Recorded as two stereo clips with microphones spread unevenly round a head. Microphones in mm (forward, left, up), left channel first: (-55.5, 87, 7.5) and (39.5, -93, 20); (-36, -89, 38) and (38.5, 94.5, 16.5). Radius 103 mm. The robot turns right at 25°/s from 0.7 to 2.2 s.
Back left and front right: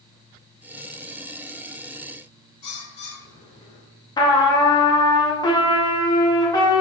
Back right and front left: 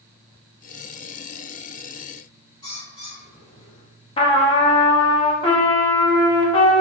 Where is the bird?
175° left, 3.5 m.